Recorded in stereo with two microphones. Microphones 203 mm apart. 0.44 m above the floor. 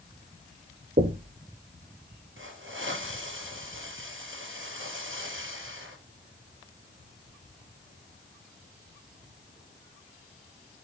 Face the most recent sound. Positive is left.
turn(degrees=-75)  # may be behind; listen again after turning